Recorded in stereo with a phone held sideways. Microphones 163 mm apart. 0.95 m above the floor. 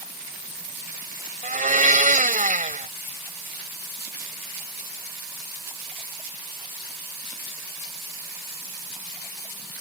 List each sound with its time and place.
1.4 s a blender: 55° right (ahead or behind)